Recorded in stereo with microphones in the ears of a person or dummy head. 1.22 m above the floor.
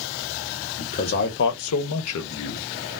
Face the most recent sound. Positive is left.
turn(degrees=55)  # may be behind; listen again after turning